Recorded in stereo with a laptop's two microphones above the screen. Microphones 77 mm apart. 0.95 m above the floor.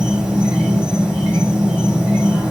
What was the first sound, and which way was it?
An insect, 10° right (ahead or behind).